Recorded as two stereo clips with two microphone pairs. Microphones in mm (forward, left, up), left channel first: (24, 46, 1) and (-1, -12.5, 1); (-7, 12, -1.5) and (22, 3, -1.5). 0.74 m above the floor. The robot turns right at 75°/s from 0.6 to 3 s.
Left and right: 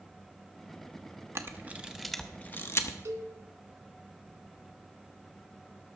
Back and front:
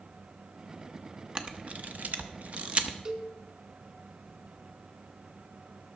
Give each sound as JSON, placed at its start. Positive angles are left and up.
{"t": 1.4, "sound": "a camera shutter", "azimuth_deg": -75, "distance_m": 0.8}
{"t": 3.0, "sound": "a cowbell", "azimuth_deg": -70, "distance_m": 1.5}